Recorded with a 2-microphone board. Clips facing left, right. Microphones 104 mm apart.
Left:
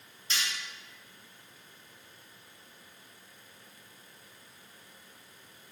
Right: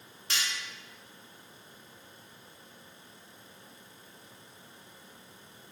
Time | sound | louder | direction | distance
0.3 | cutlery clinking | even | 70° right (ahead or behind) | 1.5 m